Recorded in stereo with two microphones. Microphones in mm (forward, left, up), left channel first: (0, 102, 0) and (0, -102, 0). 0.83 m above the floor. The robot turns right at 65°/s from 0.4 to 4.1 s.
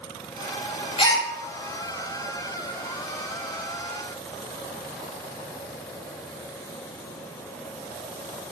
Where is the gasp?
25° left (ahead or behind), 0.6 m; by 1.3 s 10° left (ahead or behind), 0.6 m.